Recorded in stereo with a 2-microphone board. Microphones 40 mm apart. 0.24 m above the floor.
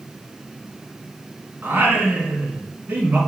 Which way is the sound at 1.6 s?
50° right (ahead or behind).